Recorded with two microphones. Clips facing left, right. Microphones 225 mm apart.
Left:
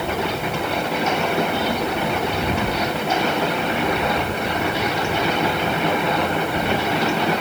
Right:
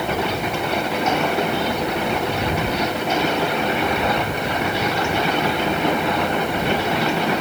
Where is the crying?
I don't hear crying.